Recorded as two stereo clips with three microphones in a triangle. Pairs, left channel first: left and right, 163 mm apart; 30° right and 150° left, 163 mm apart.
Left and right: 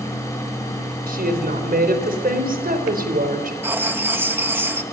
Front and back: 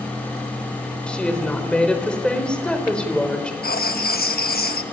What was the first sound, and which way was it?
A woman speaking, 115° right.